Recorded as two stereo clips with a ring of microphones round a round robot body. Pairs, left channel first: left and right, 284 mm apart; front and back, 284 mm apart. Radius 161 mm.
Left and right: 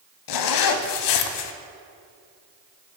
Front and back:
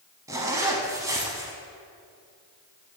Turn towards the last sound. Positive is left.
turn(degrees=100)